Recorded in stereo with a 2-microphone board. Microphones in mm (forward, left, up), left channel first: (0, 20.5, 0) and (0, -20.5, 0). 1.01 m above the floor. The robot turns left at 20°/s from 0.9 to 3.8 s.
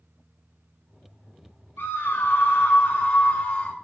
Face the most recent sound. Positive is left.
turn(degrees=40)